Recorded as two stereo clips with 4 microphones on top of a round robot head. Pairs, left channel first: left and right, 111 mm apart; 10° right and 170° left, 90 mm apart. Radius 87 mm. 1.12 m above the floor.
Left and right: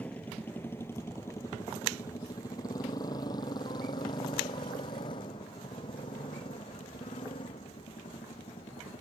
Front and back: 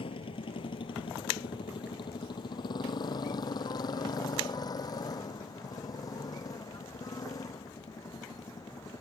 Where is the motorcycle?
10° left; by 9.0 s 40° left.